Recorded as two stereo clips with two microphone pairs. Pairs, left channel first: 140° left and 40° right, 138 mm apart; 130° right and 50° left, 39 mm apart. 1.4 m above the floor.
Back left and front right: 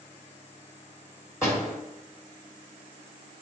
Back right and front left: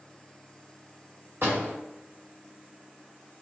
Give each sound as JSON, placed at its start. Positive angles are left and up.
{"t": 1.4, "sound": "a door slam", "azimuth_deg": 70, "distance_m": 1.8}